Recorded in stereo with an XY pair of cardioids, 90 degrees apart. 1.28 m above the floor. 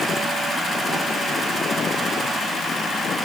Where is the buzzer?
No buzzer in this recording.